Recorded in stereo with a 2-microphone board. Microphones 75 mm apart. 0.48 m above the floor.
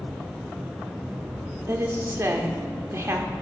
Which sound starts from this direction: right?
A woman speaking, at 1.7 s.